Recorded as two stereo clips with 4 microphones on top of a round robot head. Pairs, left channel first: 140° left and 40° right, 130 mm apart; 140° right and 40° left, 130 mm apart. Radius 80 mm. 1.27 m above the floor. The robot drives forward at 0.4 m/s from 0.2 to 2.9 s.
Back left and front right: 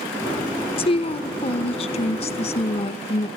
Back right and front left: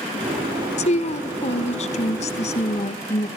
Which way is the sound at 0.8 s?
175° right.